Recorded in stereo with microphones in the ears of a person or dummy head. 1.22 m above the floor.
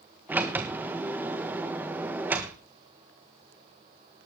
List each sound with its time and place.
0.3 s a sliding door: 10° right (ahead or behind), 1.2 m